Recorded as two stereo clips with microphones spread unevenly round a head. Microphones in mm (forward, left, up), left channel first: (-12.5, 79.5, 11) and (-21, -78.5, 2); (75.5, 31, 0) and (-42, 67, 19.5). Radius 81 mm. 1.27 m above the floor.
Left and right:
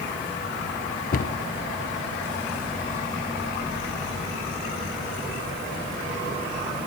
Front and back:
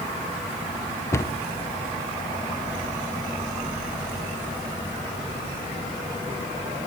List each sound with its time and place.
1.1 s a cupboard door: 45° left, 0.7 m